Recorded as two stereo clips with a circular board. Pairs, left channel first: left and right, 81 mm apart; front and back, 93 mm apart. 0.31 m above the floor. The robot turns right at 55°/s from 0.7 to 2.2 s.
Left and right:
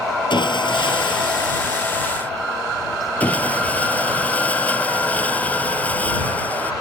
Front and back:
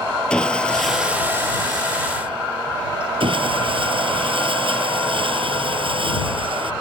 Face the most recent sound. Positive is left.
turn(degrees=160)